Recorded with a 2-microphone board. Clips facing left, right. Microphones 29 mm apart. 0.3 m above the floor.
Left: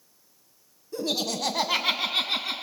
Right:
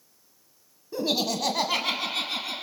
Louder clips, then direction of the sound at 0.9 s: Right 2 dB; 25° right (ahead or behind).